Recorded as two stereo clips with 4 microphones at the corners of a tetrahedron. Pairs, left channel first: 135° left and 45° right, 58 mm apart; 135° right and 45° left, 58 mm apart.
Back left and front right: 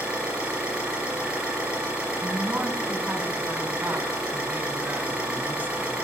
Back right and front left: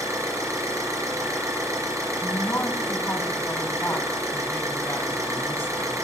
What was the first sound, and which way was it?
An engine running, 25° left.